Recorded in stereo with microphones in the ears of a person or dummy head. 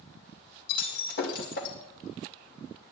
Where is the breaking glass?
70° left (ahead or behind), 2 m.